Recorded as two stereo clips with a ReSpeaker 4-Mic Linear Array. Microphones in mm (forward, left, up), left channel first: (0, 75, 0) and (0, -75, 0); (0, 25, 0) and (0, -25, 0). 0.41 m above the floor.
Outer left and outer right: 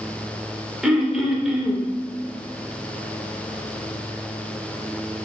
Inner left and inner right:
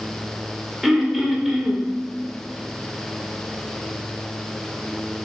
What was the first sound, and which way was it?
Throat clearing, 5° right (ahead or behind).